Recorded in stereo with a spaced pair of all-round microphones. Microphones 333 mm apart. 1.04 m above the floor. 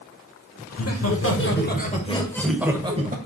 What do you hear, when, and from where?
0.7 s laughter: 50° left (ahead or behind), 1.6 m; by 3.2 s 25° right (ahead or behind), 1.1 m